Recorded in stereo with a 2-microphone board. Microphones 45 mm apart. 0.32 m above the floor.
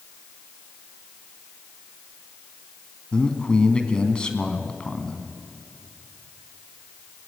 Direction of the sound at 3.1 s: 20° left (ahead or behind).